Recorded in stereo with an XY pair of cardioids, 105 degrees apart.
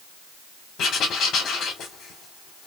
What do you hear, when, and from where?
0.8 s writing: 65° left, 2.5 m